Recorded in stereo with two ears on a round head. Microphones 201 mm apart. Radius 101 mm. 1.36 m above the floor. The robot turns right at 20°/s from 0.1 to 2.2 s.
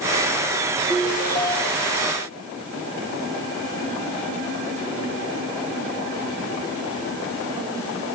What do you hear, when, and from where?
0.9 s a ringtone: 15° left (ahead or behind), 1.0 m; by 1.9 s 30° left (ahead or behind), 1.0 m